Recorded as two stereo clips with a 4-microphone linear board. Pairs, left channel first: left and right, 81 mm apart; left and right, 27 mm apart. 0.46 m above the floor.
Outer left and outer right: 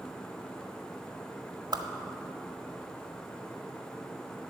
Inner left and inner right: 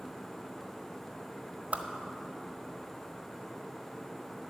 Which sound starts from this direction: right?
A whoosh, at 1.7 s.